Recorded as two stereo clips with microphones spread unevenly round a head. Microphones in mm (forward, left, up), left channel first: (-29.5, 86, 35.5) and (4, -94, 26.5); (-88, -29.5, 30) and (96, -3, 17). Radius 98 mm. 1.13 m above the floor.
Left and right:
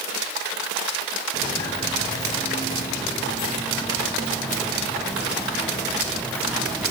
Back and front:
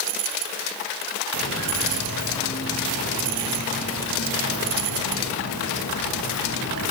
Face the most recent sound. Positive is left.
turn(degrees=-175)